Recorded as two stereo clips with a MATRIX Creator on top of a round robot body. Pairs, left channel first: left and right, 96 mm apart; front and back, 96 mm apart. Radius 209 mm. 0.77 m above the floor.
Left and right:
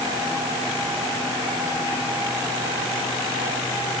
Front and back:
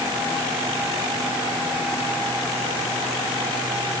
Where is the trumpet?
No trumpet in this recording.